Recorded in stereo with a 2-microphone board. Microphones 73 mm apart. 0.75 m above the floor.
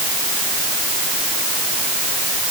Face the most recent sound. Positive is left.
No sound to turn to.